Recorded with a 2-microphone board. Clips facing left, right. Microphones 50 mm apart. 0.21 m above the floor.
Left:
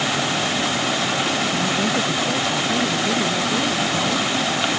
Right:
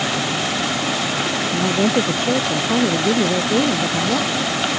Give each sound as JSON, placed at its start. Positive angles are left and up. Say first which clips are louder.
{"t": 1.5, "sound": "a woman speaking", "louder": "right 3 dB", "side_deg": -55}